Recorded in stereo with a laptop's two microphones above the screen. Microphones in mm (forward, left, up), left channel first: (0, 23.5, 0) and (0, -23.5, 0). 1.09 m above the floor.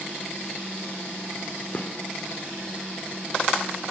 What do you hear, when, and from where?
1.7 s a gunshot: 30° left (ahead or behind), 2.5 m